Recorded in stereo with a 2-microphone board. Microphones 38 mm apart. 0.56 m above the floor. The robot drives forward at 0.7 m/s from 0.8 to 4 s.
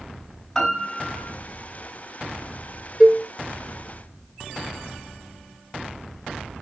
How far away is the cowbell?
About 1.6 m.